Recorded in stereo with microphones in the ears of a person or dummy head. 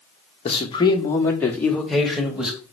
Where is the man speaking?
30° left (ahead or behind), 1.0 m; by 2.6 s 5° right (ahead or behind), 1.7 m.